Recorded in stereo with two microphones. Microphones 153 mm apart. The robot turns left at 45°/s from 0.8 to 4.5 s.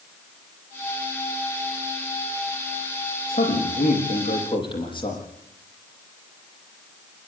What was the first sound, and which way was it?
A man speaking, 85° left.